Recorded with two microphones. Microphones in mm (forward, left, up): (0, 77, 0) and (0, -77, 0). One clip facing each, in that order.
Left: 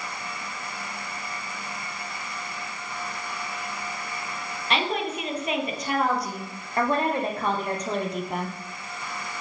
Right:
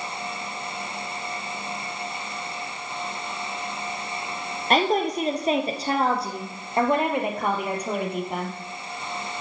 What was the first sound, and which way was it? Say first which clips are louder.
A woman speaking: right 6 dB; 45° right (ahead or behind).